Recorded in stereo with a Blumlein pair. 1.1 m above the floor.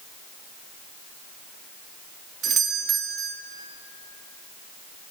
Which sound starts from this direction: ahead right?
A doorbell, at 2.4 s.